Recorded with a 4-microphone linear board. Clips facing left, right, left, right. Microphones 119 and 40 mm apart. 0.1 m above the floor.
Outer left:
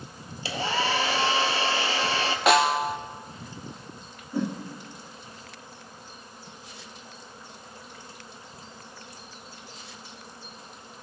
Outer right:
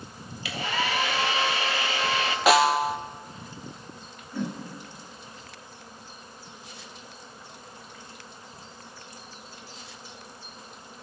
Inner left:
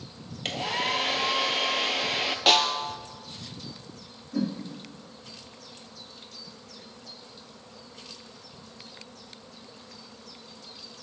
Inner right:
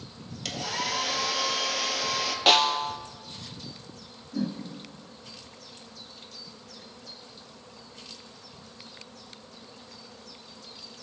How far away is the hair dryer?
About 0.8 m.